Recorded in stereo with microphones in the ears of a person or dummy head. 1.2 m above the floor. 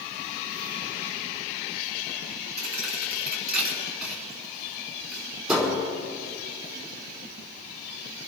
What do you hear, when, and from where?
2.6 s a thud: 5° right (ahead or behind), 4.5 m